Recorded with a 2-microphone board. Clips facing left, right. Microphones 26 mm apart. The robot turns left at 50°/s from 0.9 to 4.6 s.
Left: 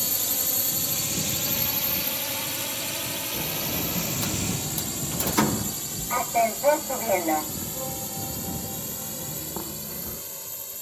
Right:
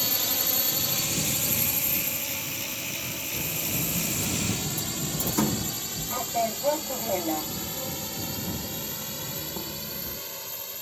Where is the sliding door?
115° left; by 10.2 s 55° left.